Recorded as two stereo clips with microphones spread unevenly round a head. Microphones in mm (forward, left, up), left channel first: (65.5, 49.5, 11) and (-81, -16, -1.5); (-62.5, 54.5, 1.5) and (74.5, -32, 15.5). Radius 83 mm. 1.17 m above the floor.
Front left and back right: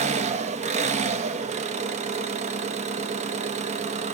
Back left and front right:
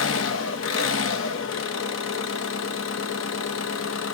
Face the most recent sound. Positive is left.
turn(degrees=155)